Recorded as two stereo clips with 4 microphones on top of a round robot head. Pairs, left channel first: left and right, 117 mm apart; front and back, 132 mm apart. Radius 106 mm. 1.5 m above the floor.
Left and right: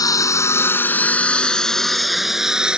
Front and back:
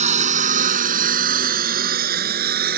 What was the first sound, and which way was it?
A lawn mower, 145° left.